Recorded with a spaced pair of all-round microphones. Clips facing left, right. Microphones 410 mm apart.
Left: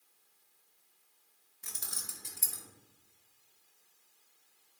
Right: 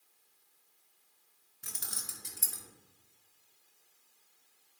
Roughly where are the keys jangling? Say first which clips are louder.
Right 1 dB; right.